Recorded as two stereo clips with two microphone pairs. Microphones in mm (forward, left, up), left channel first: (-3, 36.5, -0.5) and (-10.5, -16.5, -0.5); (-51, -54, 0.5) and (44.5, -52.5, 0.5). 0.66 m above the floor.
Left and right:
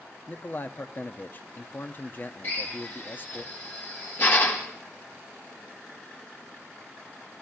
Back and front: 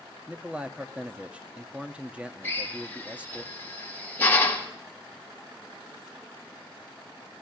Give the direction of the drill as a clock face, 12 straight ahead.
8 o'clock.